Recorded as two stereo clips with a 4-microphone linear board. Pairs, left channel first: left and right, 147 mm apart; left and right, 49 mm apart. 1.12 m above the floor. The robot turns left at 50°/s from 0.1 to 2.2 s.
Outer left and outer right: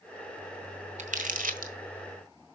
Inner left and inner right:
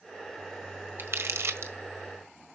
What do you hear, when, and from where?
1.0 s crumpling: 50° right (ahead or behind), 1.5 m; by 1.7 s 60° right (ahead or behind), 1.5 m